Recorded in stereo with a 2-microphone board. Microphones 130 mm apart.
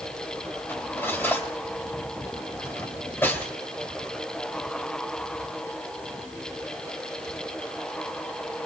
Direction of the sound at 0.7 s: 20° left (ahead or behind).